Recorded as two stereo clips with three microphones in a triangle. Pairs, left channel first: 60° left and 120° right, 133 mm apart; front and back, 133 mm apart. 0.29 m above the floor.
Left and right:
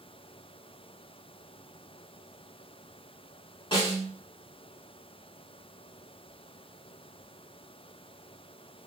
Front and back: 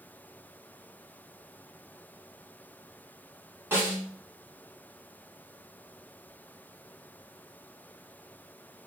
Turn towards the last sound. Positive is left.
turn(degrees=105)